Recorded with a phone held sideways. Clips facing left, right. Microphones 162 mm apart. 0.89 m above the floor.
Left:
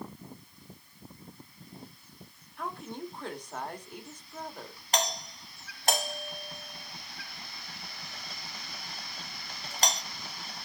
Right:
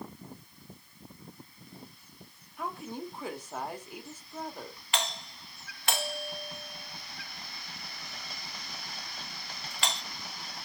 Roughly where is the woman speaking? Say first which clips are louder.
Right 1 dB; centre.